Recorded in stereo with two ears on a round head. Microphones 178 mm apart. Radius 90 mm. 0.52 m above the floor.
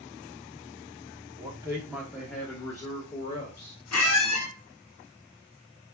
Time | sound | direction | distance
1.4 | a man speaking | 20° right (ahead or behind) | 0.9 m
3.9 | a squeak | 80° left | 0.7 m